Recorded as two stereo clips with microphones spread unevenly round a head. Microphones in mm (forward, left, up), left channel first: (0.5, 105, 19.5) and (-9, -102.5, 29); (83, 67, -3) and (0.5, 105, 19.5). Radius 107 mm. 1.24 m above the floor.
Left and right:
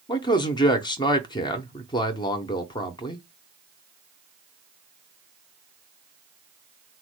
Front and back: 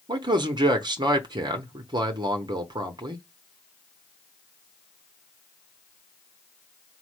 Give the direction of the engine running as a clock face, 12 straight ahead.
I don't hear an engine running.